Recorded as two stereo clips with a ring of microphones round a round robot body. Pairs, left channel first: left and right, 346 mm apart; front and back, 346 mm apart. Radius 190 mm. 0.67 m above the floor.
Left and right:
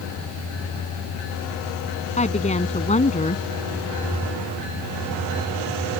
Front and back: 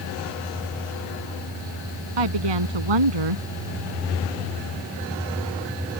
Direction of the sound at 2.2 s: 160° left.